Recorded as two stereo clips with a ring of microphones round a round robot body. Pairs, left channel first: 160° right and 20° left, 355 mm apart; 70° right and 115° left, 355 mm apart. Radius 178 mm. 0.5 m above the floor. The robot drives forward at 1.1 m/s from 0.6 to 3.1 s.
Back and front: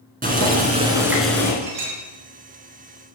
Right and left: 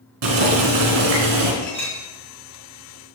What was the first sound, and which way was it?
Boiling, 90° left.